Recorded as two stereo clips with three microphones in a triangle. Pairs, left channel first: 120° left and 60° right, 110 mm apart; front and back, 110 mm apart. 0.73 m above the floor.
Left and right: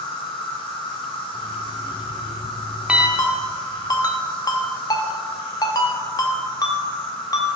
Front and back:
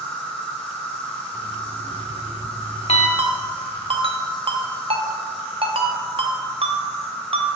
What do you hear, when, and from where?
0.0 s an insect: 75° left, 1.8 m
1.3 s an alarm clock: 20° left, 0.7 m
3.2 s a ringtone: 170° left, 0.8 m